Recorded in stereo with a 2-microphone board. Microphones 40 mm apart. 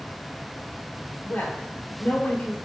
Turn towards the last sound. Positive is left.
turn(degrees=50)  # may be behind; listen again after turning